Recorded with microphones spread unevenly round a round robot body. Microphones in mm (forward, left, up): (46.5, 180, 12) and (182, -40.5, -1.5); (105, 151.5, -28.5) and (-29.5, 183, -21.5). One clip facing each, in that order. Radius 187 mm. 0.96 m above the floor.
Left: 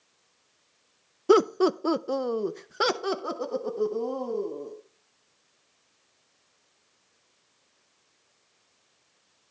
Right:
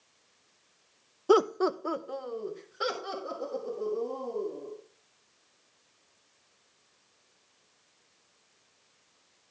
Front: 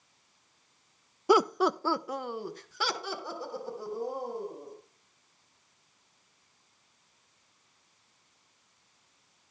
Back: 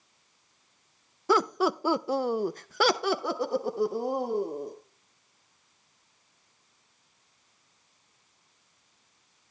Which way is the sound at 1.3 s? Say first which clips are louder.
Left 4 dB, front 1 dB; 60° left.